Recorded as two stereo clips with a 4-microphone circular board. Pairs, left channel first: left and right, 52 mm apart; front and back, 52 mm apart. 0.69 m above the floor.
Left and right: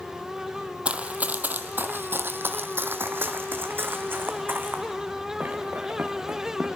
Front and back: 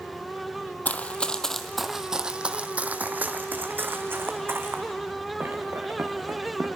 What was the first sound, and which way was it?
Running footsteps, 35° right.